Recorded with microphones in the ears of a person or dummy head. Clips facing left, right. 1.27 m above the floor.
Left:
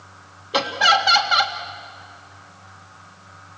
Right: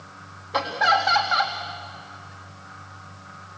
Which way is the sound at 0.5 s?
40° left (ahead or behind).